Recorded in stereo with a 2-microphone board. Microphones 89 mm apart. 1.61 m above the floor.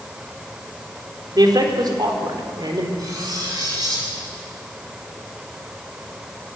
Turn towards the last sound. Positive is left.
turn(degrees=-45)  # may be behind; listen again after turning